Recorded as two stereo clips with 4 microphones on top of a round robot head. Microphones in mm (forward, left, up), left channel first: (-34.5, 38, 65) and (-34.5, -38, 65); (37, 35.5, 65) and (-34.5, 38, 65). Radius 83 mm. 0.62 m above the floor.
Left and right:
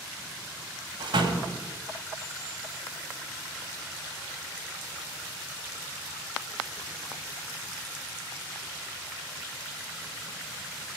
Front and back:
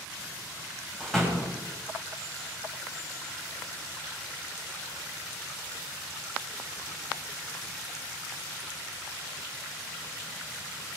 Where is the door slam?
90° right, 2.5 m.